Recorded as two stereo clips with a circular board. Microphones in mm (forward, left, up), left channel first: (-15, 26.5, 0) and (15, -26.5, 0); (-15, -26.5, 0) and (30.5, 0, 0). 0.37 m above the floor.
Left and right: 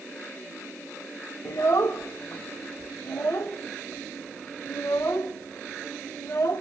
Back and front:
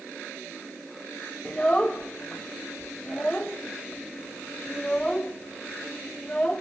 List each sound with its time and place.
1.4 s a child speaking: 145° left, 0.7 m